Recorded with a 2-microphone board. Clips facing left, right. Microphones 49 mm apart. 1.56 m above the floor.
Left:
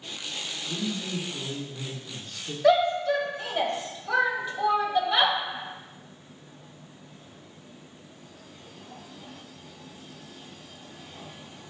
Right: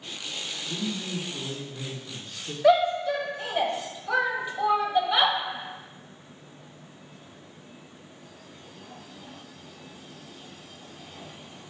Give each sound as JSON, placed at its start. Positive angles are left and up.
{"t": 0.7, "sound": "a man speaking", "side_deg": -15, "distance_m": 1.1}
{"t": 2.6, "sound": "a shout", "side_deg": -15, "distance_m": 1.0}